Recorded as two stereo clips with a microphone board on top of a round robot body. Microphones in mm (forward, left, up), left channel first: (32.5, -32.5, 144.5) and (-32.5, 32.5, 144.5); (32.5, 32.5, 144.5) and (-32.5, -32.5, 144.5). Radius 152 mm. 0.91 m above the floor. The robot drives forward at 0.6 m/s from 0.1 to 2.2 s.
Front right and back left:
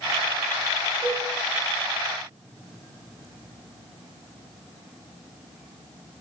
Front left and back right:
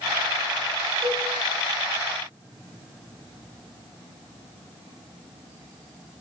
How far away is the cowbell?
About 5.5 m.